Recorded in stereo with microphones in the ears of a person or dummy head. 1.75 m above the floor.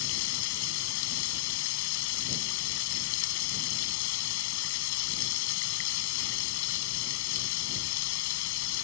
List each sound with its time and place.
0.0 s running water: 80° left